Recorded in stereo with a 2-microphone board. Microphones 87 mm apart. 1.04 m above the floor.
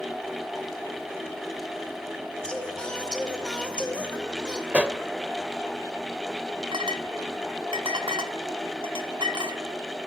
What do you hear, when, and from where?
2.4 s singing: 10° left (ahead or behind), 3 m
4.7 s a pop: 15° right (ahead or behind), 1.0 m
6.7 s a clink: 80° right, 1.6 m